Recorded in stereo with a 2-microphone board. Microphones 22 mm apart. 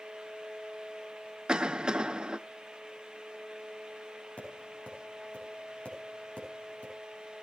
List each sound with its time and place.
1.5 s a cough: 45° right (ahead or behind), 0.7 m
4.4 s tapping: 80° left, 6 m